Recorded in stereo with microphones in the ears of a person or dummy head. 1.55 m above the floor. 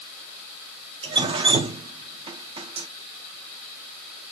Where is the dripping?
30° right (ahead or behind), 0.8 m.